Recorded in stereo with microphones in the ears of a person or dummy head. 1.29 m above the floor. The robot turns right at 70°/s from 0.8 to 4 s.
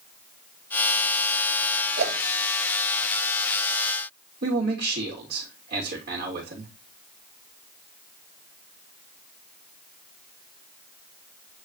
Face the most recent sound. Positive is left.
turn(degrees=-50)  # may be behind; listen again after turning